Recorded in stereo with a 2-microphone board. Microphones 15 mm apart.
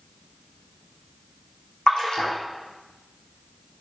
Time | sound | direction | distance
1.9 | a splash | 65° left (ahead or behind) | 3 m